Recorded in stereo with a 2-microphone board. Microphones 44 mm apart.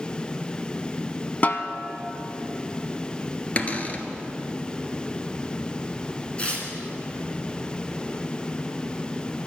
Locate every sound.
1.4 s a snare drum: 35° left (ahead or behind), 0.8 m
3.6 s a cupboard door: 35° left (ahead or behind), 1.3 m
6.4 s tearing paper: 25° left (ahead or behind), 3 m